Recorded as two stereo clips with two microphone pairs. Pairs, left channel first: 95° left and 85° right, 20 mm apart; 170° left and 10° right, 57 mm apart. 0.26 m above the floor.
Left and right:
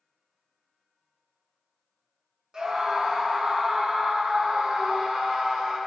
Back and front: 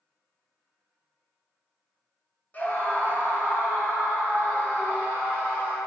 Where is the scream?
130° right, 2 m.